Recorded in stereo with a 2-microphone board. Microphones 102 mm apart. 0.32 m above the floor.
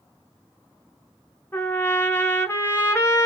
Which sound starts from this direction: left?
A trumpet, at 1.5 s.